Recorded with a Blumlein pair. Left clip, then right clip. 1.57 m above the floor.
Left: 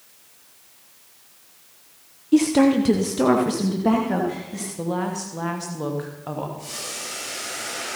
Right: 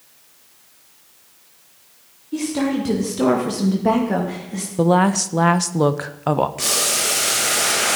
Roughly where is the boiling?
Ahead right.